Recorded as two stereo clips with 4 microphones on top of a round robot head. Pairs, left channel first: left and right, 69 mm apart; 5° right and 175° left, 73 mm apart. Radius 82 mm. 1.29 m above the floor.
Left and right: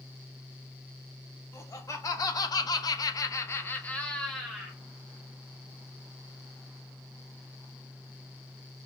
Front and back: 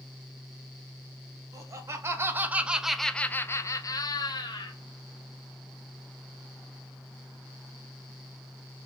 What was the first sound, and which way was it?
Laughter, 130° left.